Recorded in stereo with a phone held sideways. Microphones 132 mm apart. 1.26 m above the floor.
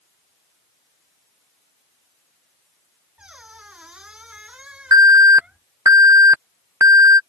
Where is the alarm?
25° right (ahead or behind).